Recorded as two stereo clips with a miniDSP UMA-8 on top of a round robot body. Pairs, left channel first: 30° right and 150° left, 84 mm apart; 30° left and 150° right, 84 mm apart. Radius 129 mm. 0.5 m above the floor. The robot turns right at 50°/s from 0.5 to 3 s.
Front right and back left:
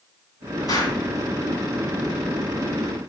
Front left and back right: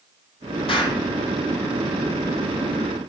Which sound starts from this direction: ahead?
An explosion, at 0.7 s.